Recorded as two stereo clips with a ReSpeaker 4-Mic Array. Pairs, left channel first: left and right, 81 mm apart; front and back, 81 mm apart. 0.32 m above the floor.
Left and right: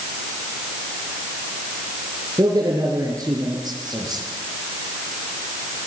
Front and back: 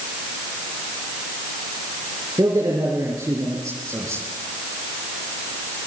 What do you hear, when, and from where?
2.4 s a man speaking: 135° right, 6 m